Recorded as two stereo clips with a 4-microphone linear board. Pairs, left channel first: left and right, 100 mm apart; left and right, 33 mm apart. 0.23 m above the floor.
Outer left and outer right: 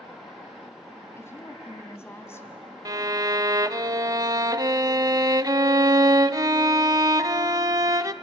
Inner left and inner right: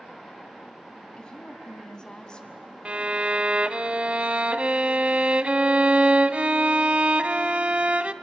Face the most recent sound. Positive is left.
turn(degrees=-40)  # may be behind; listen again after turning